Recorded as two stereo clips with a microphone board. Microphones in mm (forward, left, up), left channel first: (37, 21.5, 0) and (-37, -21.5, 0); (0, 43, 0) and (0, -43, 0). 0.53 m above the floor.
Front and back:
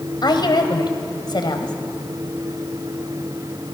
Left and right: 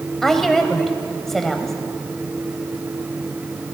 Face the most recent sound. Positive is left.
turn(degrees=5)